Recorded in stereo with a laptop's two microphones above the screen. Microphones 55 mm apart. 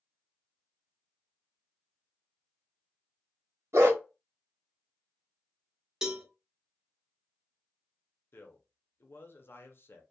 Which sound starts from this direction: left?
A man speaking, at 8.3 s.